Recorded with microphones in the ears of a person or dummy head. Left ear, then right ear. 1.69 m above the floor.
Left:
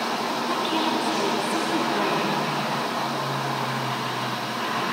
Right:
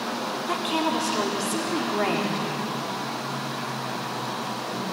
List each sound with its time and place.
0.5 s a woman speaking: 30° right (ahead or behind), 4.5 m